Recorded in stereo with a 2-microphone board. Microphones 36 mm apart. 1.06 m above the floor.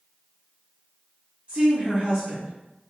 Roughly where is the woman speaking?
Right.